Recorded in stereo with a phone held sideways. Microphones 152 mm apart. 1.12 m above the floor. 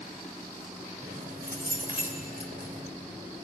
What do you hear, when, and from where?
1.0 s keys jangling: 80° right, 3 m